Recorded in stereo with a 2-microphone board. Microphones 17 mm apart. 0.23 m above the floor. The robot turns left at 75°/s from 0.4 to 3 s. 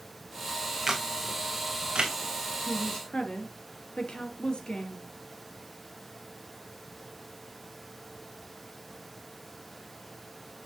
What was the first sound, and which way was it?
A camera shutter, 30° right (ahead or behind).